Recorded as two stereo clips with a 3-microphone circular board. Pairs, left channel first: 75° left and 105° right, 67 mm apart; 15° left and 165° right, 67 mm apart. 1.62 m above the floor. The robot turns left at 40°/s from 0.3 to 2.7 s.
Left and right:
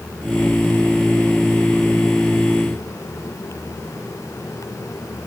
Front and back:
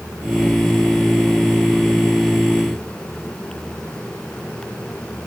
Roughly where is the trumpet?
No trumpet in this recording.